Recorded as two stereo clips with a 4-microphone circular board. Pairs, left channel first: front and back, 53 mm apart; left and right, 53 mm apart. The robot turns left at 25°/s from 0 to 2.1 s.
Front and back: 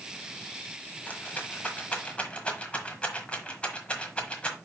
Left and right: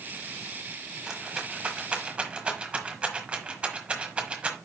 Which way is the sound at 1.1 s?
15° right.